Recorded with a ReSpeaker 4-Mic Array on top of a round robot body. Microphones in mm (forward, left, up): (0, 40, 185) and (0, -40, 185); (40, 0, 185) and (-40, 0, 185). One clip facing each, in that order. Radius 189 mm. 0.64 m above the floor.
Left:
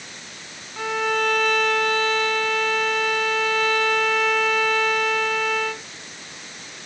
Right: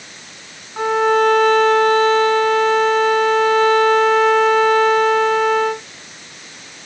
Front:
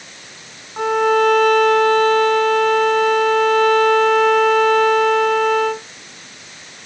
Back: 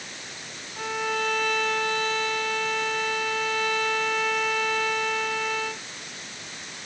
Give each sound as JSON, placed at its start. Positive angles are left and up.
{"t": 0.8, "sound": "a violin", "azimuth_deg": -35}